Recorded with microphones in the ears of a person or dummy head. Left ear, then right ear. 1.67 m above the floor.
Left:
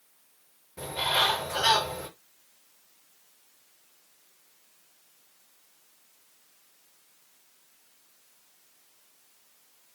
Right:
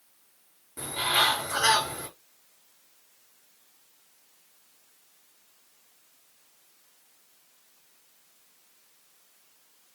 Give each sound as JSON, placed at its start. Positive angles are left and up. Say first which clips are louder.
{"t": 0.8, "sound": "a bird", "louder": "right 1 dB", "side_deg": -45, "distance_m": 5.0}